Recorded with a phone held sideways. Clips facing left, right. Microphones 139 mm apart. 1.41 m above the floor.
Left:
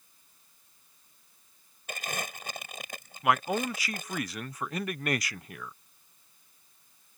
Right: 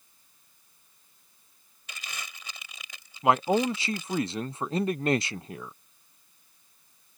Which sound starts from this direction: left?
Crumpling, at 1.9 s.